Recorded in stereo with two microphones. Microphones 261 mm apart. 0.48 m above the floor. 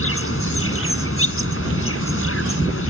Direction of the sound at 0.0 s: 55° left (ahead or behind).